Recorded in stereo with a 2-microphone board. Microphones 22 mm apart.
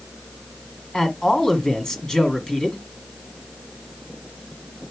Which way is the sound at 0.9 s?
30° left (ahead or behind).